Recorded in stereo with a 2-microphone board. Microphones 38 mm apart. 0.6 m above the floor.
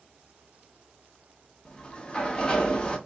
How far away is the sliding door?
About 0.9 m.